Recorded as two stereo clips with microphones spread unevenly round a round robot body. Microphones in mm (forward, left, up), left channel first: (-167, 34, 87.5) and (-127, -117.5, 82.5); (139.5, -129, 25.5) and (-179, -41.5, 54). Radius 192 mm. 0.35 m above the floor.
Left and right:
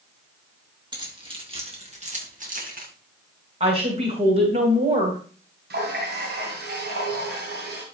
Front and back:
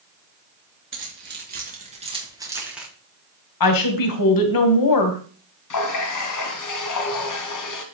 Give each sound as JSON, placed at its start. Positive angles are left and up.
{"t": 0.9, "sound": "keys jangling", "azimuth_deg": -140, "distance_m": 5.0}
{"t": 3.6, "sound": "a woman speaking", "azimuth_deg": -20, "distance_m": 2.5}
{"t": 5.7, "sound": "a running tap", "azimuth_deg": -45, "distance_m": 2.5}